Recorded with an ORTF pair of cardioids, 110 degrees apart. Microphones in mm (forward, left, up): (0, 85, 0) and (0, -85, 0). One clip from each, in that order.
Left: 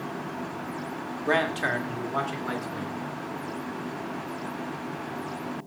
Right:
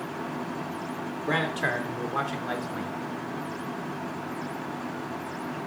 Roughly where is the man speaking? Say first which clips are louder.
Left 2 dB; ahead left.